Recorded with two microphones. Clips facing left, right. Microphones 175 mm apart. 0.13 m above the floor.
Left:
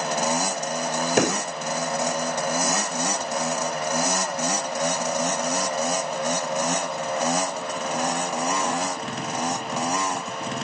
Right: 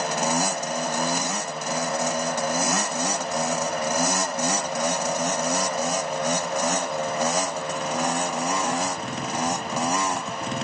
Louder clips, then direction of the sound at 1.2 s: Left 8 dB; 80° left.